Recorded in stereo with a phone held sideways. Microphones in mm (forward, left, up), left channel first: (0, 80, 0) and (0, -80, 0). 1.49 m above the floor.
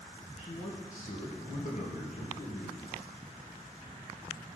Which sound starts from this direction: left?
A man speaking, at 0.4 s.